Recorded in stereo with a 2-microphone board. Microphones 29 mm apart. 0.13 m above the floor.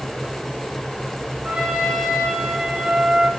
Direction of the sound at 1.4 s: 60° right (ahead or behind).